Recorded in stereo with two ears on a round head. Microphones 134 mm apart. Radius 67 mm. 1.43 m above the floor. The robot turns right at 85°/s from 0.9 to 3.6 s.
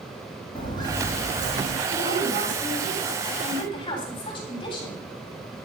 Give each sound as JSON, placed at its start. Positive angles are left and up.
{"t": 0.6, "sound": "footsteps", "side_deg": 30, "distance_m": 3.0}
{"t": 1.9, "sound": "a woman speaking", "azimuth_deg": -110, "distance_m": 8.0}